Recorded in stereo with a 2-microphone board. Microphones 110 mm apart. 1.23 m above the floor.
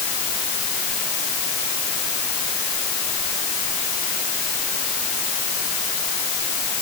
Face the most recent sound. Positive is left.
No sound to turn to.